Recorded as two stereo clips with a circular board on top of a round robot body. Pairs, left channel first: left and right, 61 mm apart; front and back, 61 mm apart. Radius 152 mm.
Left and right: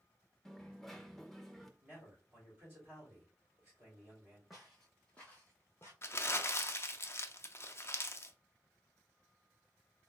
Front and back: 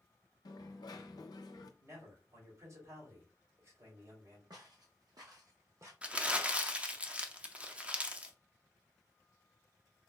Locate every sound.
0.5 s a dropped coin: 5° left, 0.5 m
1.8 s a man speaking: 160° right, 2.5 m
4.5 s footsteps: straight behind, 1.1 m; by 5.9 s 135° left, 0.8 m
6.0 s crumpling: 115° left, 0.8 m